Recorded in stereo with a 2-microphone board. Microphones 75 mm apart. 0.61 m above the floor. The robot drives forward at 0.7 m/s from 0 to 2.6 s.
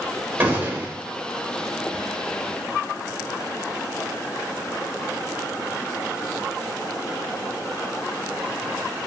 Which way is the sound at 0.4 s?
25° right (ahead or behind).